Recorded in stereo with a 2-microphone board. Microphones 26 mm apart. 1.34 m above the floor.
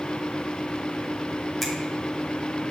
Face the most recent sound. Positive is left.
turn(degrees=5)  # may be behind; listen again after turning